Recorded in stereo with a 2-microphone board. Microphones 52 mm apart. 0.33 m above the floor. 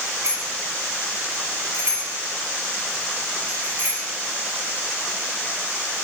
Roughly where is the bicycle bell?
Right.